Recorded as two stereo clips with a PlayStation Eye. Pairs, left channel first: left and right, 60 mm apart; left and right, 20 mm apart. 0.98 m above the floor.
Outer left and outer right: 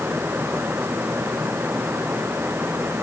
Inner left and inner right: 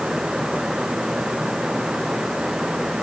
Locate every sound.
Only background noise.